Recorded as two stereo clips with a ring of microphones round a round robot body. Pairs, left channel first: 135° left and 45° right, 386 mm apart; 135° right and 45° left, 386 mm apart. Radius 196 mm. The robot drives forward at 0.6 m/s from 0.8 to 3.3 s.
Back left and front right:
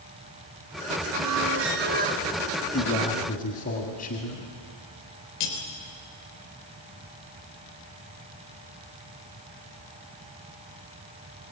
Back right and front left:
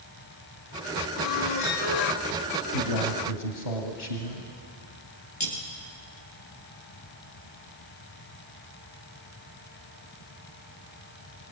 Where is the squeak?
90° right, 1.3 m; by 2.2 s 120° right, 1.4 m.